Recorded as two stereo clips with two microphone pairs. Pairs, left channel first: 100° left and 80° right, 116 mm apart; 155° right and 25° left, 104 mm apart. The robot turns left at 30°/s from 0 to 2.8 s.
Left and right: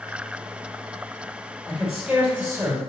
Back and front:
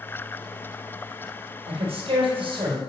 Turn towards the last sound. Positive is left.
turn(degrees=-20)